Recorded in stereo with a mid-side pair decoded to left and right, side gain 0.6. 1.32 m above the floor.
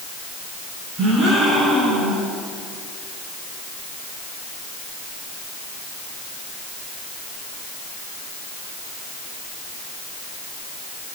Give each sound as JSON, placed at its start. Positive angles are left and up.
{"t": 1.0, "sound": "a gasp", "azimuth_deg": -40, "distance_m": 8.5}